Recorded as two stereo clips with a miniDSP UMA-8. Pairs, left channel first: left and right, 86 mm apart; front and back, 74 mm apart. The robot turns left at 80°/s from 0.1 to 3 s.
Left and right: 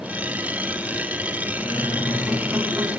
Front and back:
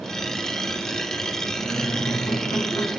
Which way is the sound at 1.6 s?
65° left.